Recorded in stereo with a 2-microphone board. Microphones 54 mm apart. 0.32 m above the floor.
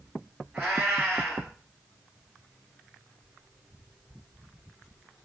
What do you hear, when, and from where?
0.5 s a cat meowing: 20° right (ahead or behind), 1.6 m